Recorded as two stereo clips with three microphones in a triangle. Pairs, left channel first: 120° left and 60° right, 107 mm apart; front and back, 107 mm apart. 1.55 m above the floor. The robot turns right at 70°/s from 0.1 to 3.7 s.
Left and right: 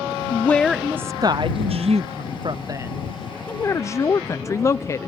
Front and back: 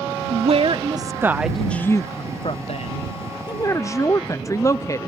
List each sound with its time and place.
0.3 s a woman speaking: straight behind; by 5.1 s 60° left